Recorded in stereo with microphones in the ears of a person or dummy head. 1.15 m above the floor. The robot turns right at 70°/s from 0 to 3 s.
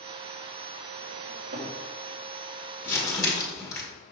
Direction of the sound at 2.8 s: 10° left (ahead or behind).